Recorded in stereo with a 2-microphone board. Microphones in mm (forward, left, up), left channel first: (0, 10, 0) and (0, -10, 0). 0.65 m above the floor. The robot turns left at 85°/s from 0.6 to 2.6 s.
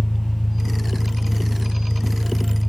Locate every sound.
0.0 s an engine running: 5° left, 2.5 m; by 2.7 s 165° right, 2.5 m